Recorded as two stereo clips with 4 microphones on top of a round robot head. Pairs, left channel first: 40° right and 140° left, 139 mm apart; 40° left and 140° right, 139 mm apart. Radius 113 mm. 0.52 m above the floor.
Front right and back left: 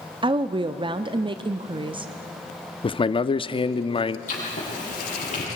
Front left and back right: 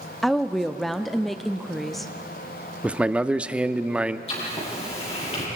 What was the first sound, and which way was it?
A woman speaking, 130° left.